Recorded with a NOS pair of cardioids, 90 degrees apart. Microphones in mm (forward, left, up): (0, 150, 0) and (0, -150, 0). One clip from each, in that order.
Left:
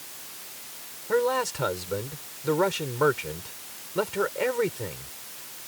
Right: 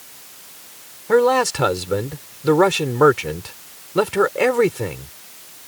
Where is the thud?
No thud in this recording.